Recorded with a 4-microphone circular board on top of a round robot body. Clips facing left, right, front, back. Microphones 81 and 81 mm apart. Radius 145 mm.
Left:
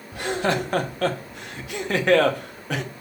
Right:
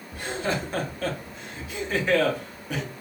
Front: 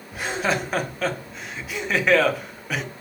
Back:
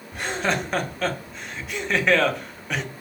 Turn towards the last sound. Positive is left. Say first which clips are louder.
# left 5 dB, front 1 dB
turn(degrees=85)